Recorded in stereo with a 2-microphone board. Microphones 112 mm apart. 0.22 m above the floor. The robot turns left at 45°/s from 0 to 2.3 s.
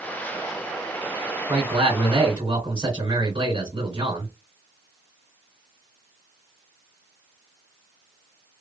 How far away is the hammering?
I don't hear hammering.